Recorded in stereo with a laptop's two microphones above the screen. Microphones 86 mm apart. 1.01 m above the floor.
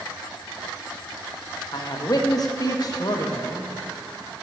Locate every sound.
1.7 s a man speaking: 45° left (ahead or behind), 0.8 m